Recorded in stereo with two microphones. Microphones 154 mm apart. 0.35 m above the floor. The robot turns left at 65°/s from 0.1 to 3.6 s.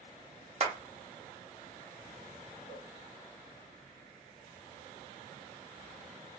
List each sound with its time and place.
0.6 s a clap: 45° right (ahead or behind), 1.0 m; by 0.7 s 40° right (ahead or behind), 1.0 m
2.7 s a cowbell: 75° left (ahead or behind), 1.4 m; by 2.9 s 85° left, 1.4 m